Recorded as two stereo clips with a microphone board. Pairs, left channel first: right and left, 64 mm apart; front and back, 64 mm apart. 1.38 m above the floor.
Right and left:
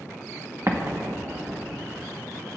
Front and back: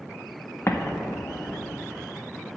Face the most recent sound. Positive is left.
turn(degrees=50)